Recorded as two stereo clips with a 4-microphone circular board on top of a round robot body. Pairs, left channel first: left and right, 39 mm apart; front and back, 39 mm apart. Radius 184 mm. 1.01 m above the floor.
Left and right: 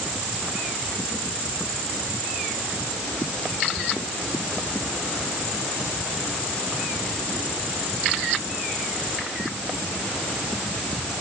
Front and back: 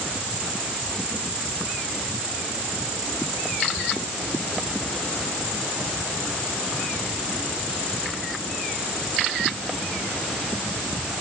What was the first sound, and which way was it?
Only background noise.